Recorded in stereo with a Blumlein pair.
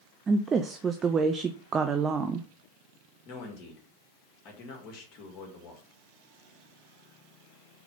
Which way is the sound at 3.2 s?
40° left.